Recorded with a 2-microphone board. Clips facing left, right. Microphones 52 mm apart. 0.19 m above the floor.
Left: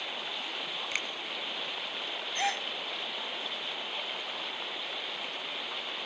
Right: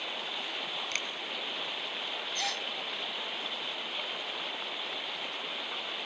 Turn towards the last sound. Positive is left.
turn(degrees=30)  # may be behind; listen again after turning